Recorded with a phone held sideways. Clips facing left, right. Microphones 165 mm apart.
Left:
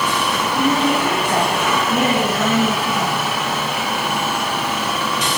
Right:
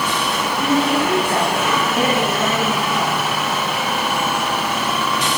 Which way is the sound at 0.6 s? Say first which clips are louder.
Even; 25° left (ahead or behind).